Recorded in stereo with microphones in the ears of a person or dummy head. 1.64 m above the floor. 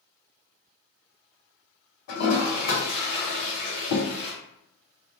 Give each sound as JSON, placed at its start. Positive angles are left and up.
{"t": 2.1, "sound": "a toilet flushing", "side_deg": 55, "distance_m": 1.4}